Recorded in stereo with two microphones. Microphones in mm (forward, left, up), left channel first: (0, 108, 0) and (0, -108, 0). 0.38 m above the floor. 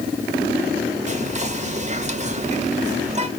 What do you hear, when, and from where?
1.1 s whispering: 35° right (ahead or behind), 0.9 m